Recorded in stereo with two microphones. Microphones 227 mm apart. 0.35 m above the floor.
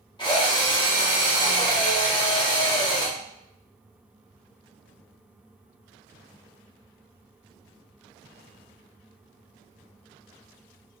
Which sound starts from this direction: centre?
A drill, at 0.2 s.